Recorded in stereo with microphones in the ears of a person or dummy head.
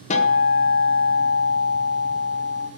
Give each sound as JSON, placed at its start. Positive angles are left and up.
{"t": 0.1, "sound": "a guitar", "side_deg": 35, "distance_m": 0.9}